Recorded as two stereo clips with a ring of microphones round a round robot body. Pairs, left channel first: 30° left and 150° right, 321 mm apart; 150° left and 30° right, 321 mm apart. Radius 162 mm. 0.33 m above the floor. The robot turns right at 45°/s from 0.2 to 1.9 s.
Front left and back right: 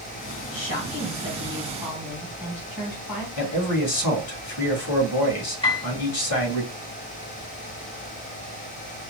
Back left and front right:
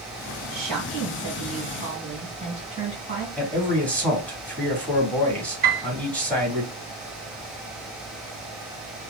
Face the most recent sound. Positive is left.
turn(degrees=-30)